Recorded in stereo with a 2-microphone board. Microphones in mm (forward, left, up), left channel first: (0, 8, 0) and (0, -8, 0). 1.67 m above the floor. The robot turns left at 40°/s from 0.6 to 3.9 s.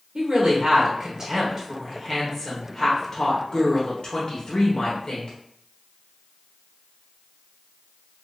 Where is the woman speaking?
120° right, 0.9 m; by 5.3 s 110° left, 0.9 m.